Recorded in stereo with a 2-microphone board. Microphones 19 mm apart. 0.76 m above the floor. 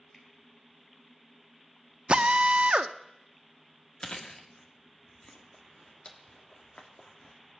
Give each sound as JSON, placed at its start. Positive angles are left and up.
{"t": 0.1, "sound": "a finger snap", "side_deg": 25, "distance_m": 3.5}
{"t": 2.1, "sound": "a drill", "side_deg": -80, "distance_m": 0.6}
{"t": 4.0, "sound": "chewing", "side_deg": 65, "distance_m": 1.7}